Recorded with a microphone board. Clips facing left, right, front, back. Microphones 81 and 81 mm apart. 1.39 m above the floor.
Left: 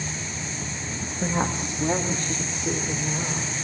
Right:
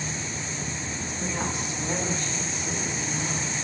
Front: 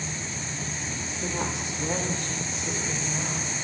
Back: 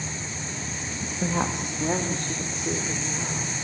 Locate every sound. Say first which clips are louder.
1.0 s a woman speaking: left 6 dB, back 5 dB; 150° left, 1.6 m; by 3.5 s 135° left, 5 m